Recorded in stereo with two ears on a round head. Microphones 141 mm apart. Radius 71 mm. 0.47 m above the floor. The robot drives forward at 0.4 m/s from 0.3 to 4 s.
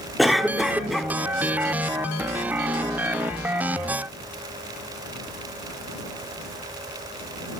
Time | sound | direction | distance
0.2 | a cough | centre (ahead or behind) | 0.9 m